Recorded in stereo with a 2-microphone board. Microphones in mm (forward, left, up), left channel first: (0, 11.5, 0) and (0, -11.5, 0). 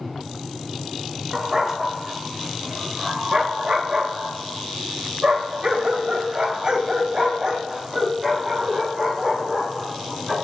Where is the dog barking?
20° right (ahead or behind), 2 m; by 10.3 s 25° right (ahead or behind), 4.5 m.